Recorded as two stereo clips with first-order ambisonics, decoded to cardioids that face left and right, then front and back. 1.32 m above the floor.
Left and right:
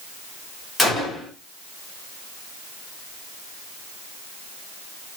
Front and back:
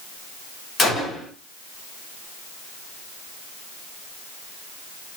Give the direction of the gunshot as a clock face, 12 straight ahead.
11 o'clock.